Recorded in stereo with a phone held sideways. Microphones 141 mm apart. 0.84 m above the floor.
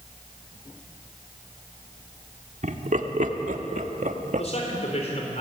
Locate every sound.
2.6 s laughter: 65° right (ahead or behind), 2 m; by 4.5 s 60° right (ahead or behind), 1.3 m
4.4 s a man speaking: 50° left (ahead or behind), 3.5 m